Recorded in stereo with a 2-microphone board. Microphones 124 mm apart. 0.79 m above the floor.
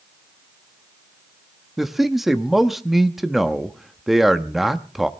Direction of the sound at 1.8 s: Centre (ahead or behind).